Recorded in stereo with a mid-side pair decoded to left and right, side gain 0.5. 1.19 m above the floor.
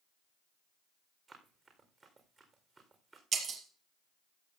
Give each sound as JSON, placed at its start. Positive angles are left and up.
{"t": 1.3, "sound": "running footsteps", "azimuth_deg": -30, "distance_m": 4.5}
{"t": 3.3, "sound": "breaking glass", "azimuth_deg": -45, "distance_m": 4.0}